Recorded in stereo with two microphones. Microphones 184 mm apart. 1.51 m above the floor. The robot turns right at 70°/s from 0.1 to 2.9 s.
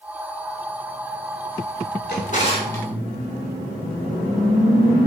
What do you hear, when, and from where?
2.1 s a drawer: 120° left, 2.5 m; by 2.9 s 170° left, 2.5 m